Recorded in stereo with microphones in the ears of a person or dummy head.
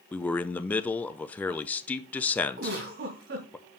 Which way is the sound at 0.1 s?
5° left (ahead or behind).